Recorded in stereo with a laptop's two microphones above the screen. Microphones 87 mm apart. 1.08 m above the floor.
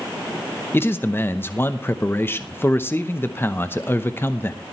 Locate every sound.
0.7 s a man speaking: 25° left (ahead or behind), 0.7 m